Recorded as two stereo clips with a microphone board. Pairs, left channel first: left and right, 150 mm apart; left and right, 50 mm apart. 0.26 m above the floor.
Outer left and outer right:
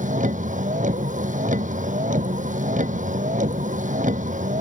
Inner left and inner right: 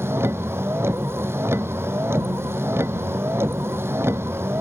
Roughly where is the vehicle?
Right.